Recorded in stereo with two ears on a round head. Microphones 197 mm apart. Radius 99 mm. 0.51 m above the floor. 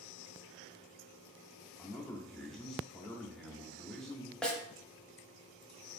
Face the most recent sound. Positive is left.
turn(degrees=5)  # may be behind; listen again after turning